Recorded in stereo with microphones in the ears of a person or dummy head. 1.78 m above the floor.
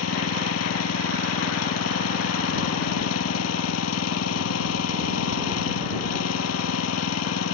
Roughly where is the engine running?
Left.